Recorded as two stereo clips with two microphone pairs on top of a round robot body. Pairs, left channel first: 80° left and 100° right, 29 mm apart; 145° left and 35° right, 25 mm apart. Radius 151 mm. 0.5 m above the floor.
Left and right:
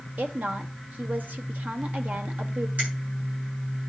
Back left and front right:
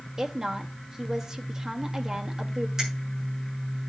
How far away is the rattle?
No rattle in this recording.